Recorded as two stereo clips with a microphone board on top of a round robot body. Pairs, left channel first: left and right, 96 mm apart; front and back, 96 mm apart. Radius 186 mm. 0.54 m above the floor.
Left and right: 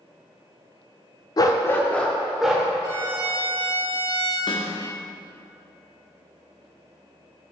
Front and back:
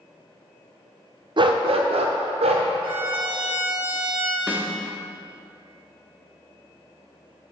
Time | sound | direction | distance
1.4 | a dog barking | 140° left | 0.6 m
2.8 | a violin | 150° right | 2.5 m
4.5 | a snare drum | 110° left | 1.4 m